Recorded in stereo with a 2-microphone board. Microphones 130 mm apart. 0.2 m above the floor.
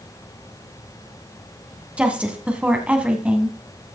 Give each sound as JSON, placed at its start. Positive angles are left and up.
{"t": 2.0, "sound": "a woman speaking", "side_deg": -10, "distance_m": 1.6}